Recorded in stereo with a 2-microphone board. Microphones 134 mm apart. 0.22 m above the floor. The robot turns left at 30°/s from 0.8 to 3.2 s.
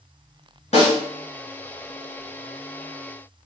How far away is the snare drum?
About 1.9 m.